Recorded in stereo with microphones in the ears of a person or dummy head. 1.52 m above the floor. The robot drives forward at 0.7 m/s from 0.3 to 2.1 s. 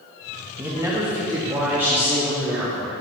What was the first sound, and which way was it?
A man speaking, 15° right (ahead or behind).